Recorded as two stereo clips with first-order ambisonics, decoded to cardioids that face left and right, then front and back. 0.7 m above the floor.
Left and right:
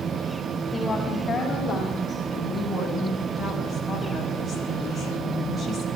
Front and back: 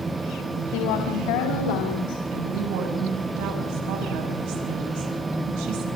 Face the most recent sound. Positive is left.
turn(degrees=-175)